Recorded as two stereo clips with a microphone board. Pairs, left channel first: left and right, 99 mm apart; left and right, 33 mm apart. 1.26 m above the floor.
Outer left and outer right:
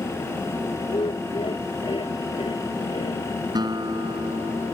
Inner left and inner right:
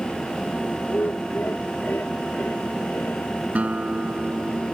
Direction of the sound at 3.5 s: 45° right (ahead or behind).